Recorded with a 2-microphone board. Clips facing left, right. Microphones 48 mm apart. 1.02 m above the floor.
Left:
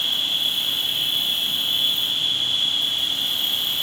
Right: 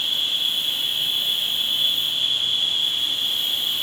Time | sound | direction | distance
0.0 | an insect | 80° left | 9 m